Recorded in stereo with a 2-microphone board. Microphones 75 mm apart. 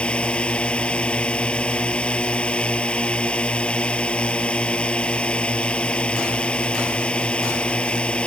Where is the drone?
15° left (ahead or behind).